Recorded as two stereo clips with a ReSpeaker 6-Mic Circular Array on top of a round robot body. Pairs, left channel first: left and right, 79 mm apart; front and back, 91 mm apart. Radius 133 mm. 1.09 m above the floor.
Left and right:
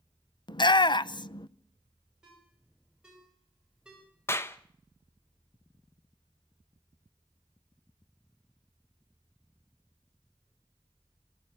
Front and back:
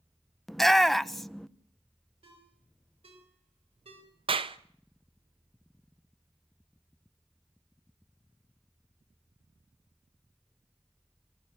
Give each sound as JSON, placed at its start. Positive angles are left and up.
{"t": 0.5, "sound": "a shout", "azimuth_deg": 85, "distance_m": 1.1}
{"t": 2.2, "sound": "a ringtone", "azimuth_deg": -170, "distance_m": 5.0}
{"t": 4.3, "sound": "a clap", "azimuth_deg": 155, "distance_m": 1.1}